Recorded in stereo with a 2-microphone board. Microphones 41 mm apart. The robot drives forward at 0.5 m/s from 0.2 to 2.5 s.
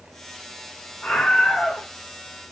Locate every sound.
1.0 s a scream: 30° left (ahead or behind), 1.8 m; by 1.9 s 25° left (ahead or behind), 2 m